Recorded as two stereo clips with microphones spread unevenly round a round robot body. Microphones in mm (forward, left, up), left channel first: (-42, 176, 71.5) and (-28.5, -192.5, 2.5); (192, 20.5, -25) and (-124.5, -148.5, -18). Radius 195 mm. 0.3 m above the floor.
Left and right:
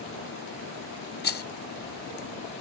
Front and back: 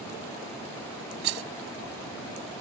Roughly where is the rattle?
Behind.